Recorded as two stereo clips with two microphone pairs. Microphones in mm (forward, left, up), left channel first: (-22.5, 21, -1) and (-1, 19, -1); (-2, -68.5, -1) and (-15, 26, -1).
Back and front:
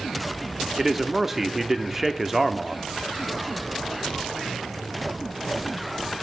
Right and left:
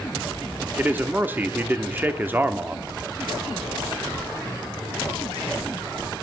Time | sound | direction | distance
0.8 | a man speaking | 50° left | 0.7 m